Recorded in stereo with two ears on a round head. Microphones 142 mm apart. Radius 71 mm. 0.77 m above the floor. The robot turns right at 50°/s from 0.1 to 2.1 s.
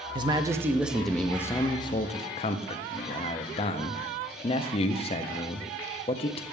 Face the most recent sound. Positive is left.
turn(degrees=55)